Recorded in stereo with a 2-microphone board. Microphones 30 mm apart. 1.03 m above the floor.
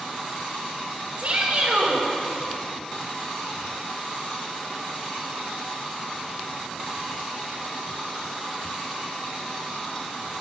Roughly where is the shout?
Right.